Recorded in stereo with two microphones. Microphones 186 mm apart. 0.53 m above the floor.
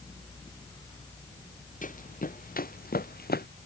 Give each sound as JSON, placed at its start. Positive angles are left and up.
{"t": 1.8, "sound": "running footsteps", "side_deg": 45}